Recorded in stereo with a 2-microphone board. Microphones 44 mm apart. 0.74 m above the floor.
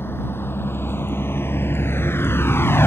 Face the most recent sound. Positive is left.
turn(degrees=70)  # may be behind; listen again after turning